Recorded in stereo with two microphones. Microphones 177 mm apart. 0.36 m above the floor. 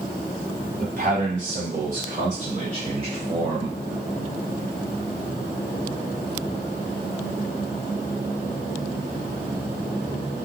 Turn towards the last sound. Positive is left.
turn(degrees=-25)  # may be behind; listen again after turning